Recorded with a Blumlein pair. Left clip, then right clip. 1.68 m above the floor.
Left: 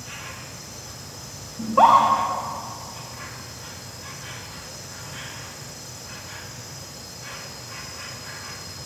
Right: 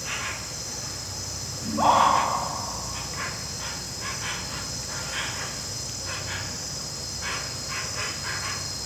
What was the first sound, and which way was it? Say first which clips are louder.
An insect: right 6 dB; 60° right.